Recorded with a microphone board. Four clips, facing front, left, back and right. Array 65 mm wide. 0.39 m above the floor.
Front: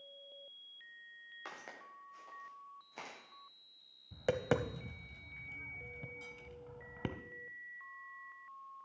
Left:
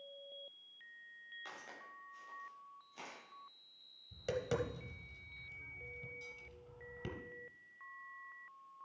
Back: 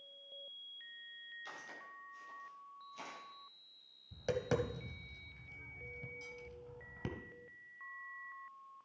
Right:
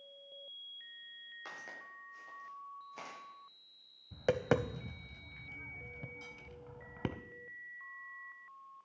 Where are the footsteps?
15° right, 4.5 m; by 3.2 s 30° right, 6 m.